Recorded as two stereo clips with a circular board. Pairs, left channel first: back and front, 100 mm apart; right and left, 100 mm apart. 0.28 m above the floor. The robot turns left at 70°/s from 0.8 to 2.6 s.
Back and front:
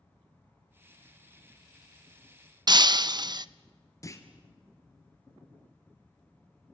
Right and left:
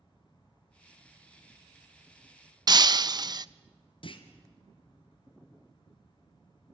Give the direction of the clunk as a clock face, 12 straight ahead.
4 o'clock.